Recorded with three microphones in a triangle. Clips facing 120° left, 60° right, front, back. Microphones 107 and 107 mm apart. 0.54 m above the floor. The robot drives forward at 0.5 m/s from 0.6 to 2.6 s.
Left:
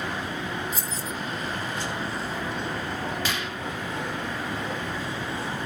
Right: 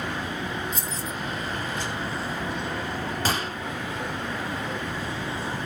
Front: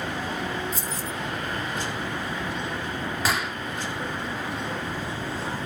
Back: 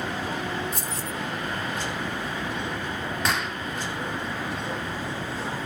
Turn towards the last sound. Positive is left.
turn(degrees=-85)